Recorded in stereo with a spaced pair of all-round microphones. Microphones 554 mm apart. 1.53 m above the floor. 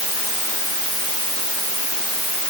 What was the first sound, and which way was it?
Only background noise.